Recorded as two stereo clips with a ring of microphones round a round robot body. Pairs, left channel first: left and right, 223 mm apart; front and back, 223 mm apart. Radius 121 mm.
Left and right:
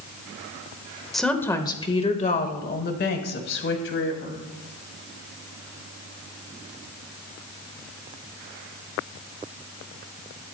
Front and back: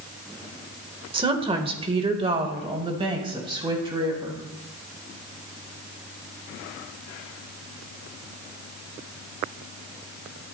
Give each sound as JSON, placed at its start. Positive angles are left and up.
{"t": 1.1, "sound": "a woman speaking", "azimuth_deg": 180, "distance_m": 1.3}